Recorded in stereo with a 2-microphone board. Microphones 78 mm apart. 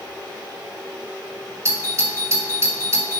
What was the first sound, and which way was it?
A doorbell, 40° right (ahead or behind).